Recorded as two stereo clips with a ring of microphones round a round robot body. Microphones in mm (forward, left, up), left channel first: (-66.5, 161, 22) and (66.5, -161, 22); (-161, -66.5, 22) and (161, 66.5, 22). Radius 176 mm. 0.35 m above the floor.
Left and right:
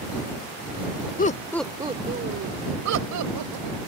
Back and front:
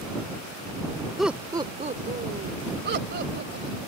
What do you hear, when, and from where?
1.2 s laughter: 110° left; by 3.8 s 35° right